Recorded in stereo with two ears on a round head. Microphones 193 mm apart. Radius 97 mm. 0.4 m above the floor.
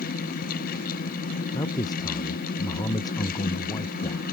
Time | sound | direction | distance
1.5 | a man speaking | 20° left (ahead or behind) | ?